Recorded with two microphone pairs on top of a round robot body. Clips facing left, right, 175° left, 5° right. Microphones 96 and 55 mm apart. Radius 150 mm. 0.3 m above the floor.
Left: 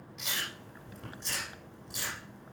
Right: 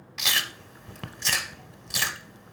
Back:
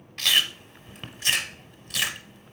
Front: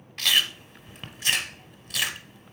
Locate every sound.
0.2 s chewing: 95° right, 0.8 m